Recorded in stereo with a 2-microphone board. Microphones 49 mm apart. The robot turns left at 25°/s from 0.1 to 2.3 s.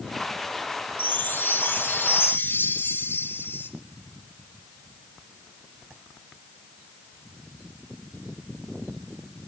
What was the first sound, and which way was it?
A chime, 125° left.